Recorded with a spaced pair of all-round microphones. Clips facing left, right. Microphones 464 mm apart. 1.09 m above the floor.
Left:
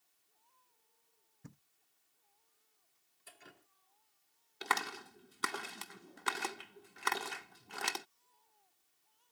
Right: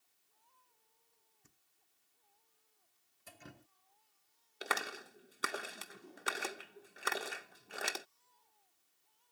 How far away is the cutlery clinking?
No cutlery clinking in this recording.